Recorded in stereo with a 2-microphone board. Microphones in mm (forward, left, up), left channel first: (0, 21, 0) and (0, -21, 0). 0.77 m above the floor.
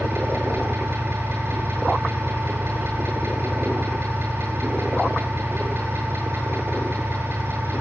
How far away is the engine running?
About 8.5 m.